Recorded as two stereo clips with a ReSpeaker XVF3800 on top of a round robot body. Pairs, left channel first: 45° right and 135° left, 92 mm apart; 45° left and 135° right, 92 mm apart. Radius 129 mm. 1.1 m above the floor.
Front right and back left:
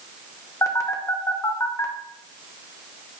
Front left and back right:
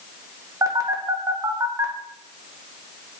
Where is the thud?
I don't hear a thud.